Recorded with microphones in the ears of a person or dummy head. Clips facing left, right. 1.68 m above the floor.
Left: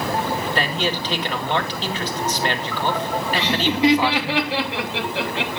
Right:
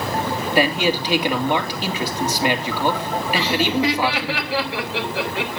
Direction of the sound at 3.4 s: 20° left (ahead or behind).